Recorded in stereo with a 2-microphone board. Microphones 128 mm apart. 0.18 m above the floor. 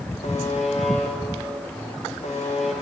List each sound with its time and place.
0.2 s a buzzer: 75° left (ahead or behind), 4 m